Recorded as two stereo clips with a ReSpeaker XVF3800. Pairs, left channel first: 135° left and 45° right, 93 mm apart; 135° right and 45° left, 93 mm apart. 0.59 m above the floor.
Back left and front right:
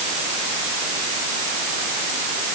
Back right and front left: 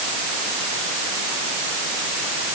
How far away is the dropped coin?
I don't hear a dropped coin.